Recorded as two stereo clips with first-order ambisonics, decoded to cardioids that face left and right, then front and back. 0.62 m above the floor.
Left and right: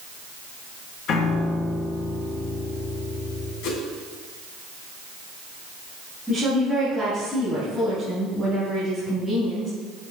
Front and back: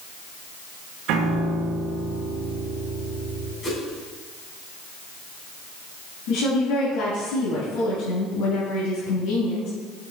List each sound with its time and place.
1.1 s a piano: 145° left, 2.5 m
3.6 s a whoosh: 65° left, 3 m
6.3 s a woman speaking: 10° left, 5 m